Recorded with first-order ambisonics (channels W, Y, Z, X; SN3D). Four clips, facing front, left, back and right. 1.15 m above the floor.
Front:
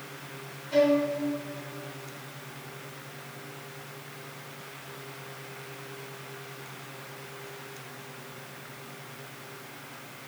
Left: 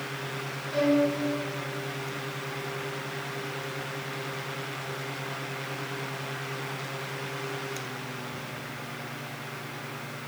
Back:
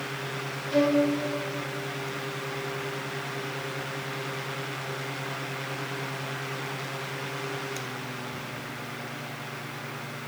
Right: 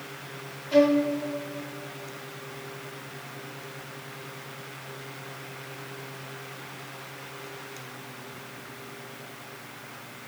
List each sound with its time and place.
0.7 s a violin: 105° right, 2 m